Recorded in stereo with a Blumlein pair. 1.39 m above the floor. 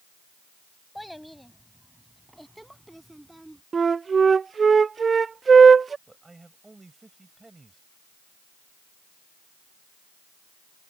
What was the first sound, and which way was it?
A child speaking, 5° left.